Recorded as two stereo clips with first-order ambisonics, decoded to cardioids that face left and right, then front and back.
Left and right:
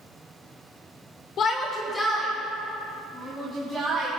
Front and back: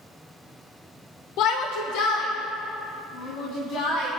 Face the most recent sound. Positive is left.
turn(degrees=-5)